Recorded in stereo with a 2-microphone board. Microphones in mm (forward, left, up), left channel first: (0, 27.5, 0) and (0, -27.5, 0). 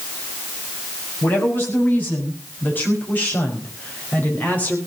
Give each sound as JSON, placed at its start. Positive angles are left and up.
{"t": 1.2, "sound": "a woman speaking", "side_deg": 35, "distance_m": 6.0}